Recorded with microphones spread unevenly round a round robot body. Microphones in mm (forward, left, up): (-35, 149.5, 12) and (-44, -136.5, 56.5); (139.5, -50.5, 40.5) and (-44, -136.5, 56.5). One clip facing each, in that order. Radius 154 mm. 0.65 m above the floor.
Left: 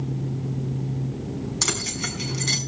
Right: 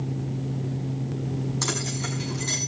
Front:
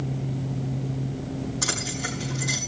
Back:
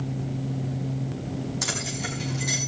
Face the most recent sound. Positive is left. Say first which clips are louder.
# even, front 1 dB
turn(degrees=130)